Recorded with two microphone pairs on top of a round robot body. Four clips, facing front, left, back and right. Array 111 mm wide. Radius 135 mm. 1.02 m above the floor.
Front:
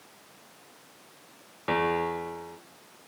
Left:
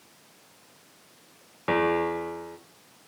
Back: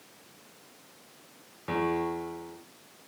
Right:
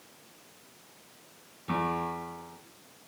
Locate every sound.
1.7 s a piano: 60° left, 2.5 m